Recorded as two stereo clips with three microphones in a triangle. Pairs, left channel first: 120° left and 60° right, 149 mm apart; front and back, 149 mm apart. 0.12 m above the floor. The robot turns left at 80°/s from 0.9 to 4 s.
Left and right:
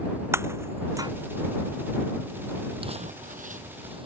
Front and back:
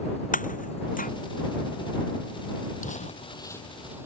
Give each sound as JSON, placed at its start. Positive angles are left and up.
{"t": 0.3, "sound": "breaking glass", "azimuth_deg": 10}
{"t": 2.8, "sound": "crumpling", "azimuth_deg": -10}